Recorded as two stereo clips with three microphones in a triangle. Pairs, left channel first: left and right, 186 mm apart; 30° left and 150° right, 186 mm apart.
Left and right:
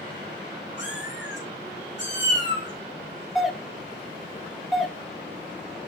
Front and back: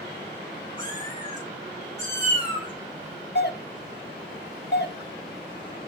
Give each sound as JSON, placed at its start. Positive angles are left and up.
{"t": 0.8, "sound": "a cat meowing", "azimuth_deg": 95, "distance_m": 5.0}
{"t": 3.4, "sound": "a doorbell", "azimuth_deg": 0, "distance_m": 0.7}